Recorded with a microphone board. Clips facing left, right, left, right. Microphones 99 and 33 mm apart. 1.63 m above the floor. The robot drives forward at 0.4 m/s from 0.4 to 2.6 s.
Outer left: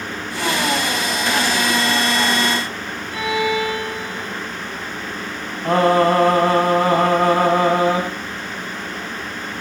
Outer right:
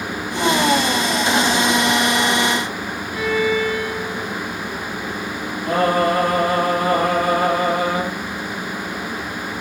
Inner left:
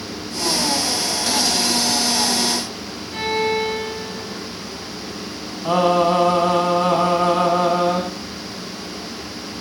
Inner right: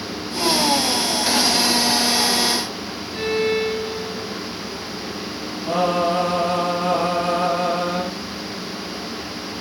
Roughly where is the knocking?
No knocking in this recording.